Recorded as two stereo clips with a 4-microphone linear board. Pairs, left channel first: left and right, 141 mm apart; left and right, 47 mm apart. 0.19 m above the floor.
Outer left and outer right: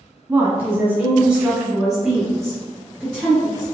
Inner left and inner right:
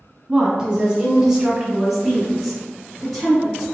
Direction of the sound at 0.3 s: 15° right (ahead or behind).